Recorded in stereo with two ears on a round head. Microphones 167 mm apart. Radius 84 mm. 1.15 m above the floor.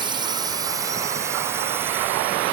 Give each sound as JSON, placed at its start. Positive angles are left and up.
{"t": 0.0, "sound": "a drone", "side_deg": -25}